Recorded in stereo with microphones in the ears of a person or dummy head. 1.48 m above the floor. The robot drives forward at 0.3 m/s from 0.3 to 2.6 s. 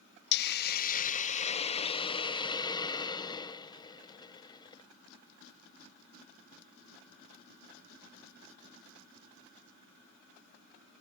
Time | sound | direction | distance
0.3 | a hiss | 65° left (ahead or behind) | ?